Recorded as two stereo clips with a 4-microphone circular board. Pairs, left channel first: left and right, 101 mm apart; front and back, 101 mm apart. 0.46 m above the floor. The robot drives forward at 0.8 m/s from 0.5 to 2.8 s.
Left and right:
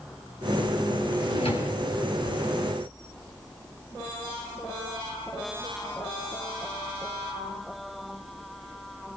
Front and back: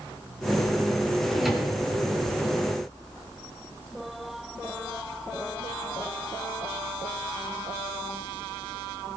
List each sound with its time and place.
1.1 s a drawer: 90° left, 4 m; by 1.8 s 95° left, 4 m